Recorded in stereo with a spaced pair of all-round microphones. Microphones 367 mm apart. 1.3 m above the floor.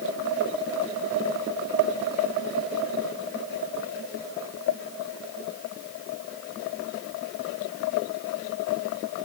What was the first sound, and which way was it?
Only background noise.